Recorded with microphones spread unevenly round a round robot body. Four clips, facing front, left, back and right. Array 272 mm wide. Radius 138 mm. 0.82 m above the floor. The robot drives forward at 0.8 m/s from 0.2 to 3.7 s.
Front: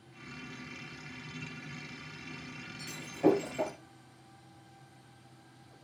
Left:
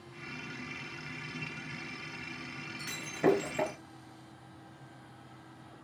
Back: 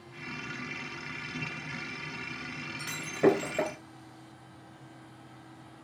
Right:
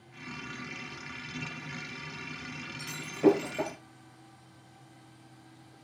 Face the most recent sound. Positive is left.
turn(degrees=-160)